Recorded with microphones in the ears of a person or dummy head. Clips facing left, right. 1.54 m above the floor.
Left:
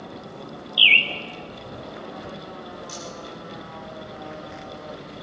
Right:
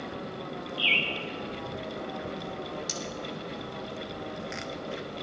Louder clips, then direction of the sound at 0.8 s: Left 3 dB; 50° left (ahead or behind).